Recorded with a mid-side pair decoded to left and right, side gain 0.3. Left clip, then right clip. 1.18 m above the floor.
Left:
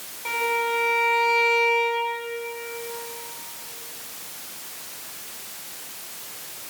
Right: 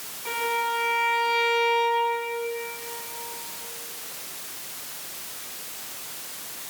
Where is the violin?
65° left, 5.5 m.